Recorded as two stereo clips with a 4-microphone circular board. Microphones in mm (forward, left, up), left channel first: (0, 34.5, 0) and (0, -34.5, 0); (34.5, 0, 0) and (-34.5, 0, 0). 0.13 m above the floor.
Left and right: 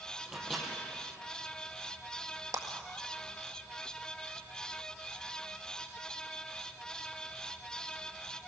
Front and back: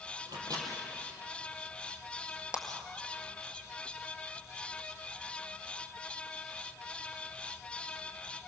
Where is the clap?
105° right, 1.9 m.